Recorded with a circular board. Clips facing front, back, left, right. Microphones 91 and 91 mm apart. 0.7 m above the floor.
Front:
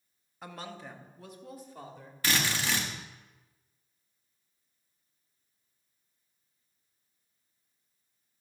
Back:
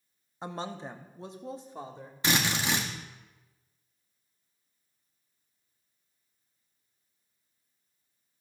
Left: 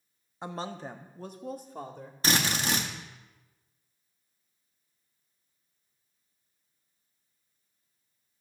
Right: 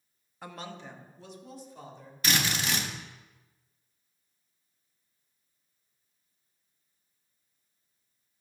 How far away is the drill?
About 1.3 m.